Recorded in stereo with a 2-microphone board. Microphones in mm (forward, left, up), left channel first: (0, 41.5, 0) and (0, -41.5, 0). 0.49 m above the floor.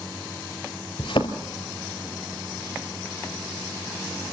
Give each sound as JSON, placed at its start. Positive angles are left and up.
{"t": 1.0, "sound": "a thud", "side_deg": 80, "distance_m": 2.5}